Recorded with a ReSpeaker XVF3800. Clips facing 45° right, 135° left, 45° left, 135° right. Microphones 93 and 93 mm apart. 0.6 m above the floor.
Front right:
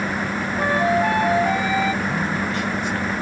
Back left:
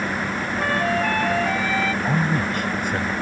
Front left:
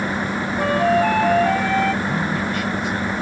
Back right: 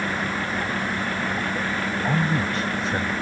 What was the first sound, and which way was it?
A flute, 30° left.